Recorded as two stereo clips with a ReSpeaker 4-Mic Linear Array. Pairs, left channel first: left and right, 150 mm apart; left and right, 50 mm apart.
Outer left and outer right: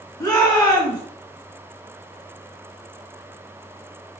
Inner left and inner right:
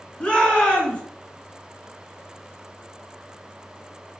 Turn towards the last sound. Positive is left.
turn(degrees=25)  # may be behind; listen again after turning